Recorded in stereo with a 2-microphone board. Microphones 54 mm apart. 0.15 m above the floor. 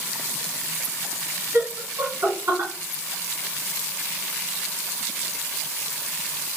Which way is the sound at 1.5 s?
40° right (ahead or behind).